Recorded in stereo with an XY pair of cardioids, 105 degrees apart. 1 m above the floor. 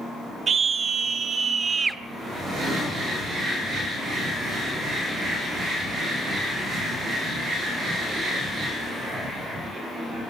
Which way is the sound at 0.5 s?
45° right.